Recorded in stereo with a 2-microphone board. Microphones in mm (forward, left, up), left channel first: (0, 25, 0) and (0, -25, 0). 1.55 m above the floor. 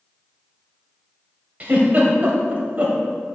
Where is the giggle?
30° right (ahead or behind), 1.5 m.